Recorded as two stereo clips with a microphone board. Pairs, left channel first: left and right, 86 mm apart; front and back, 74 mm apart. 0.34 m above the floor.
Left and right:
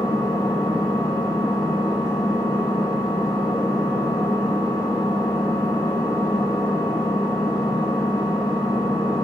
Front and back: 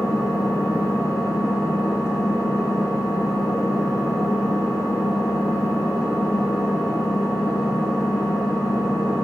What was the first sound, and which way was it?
An engine running, 45° left.